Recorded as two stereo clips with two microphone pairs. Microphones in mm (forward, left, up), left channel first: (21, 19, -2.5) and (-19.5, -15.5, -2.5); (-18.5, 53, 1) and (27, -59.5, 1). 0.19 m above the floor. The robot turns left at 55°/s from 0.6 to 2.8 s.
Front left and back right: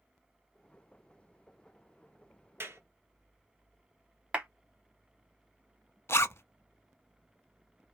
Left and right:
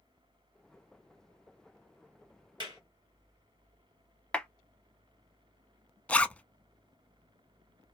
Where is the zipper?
35° left, 0.5 m.